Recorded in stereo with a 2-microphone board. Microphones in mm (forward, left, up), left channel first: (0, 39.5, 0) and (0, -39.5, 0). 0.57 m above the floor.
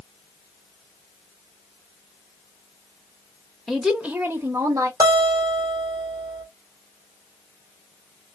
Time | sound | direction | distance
3.7 | a woman speaking | 5° left (ahead or behind) | 1.1 m
5.0 | a guitar | 50° right (ahead or behind) | 1.3 m